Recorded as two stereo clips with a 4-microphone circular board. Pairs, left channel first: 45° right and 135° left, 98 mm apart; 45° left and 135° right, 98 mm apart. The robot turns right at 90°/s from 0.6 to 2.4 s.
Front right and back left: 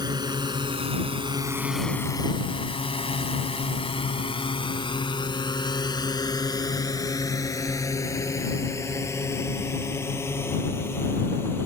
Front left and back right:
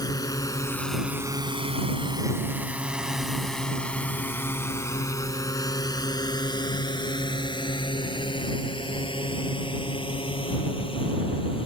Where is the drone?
90° left; by 11.7 s 20° left.